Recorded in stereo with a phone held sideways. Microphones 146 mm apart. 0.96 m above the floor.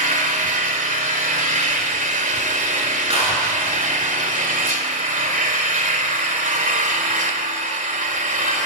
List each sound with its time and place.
0.0 s an engine running: 65° right (ahead or behind), 2 m
3.1 s a clap: 40° right (ahead or behind), 9.5 m